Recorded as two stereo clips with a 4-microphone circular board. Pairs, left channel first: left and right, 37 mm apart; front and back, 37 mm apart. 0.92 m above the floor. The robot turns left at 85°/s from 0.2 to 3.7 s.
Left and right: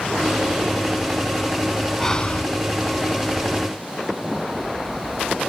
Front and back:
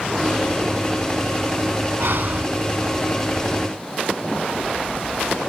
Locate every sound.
2.0 s breathing: 170° left; by 2.5 s 130° left